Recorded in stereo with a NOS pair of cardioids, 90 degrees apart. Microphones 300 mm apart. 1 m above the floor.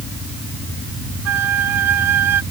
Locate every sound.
1.2 s a flute: 60° right